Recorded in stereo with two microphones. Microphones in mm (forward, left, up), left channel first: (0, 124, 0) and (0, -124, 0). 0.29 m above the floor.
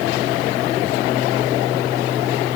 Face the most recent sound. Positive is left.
No sound to turn to.